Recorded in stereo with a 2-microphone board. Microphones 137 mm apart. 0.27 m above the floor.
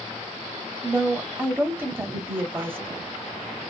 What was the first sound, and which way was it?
A woman speaking, 15° right (ahead or behind).